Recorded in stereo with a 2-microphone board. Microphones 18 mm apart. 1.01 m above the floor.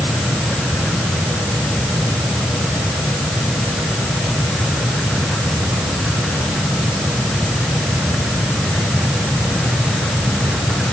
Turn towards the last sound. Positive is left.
No sound to turn to.